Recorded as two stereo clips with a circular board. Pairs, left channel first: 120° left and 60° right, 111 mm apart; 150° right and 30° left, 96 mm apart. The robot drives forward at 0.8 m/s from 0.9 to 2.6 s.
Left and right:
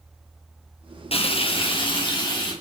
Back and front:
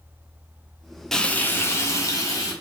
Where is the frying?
125° left, 0.6 m; by 2.5 s 165° left, 1.5 m.